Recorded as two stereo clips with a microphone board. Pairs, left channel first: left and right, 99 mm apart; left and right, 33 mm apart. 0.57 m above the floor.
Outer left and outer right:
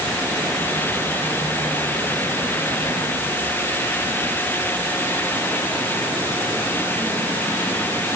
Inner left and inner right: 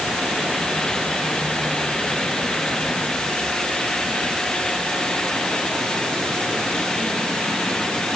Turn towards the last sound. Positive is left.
No sound to turn to.